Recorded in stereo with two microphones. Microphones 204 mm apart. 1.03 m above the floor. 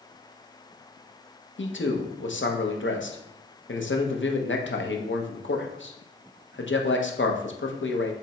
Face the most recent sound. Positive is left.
turn(degrees=70)  # may be behind; listen again after turning